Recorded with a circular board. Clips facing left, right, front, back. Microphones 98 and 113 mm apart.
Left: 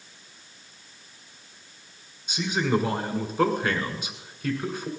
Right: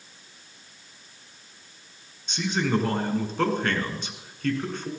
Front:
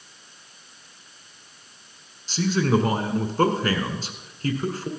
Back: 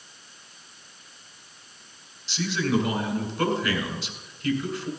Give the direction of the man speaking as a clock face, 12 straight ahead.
12 o'clock.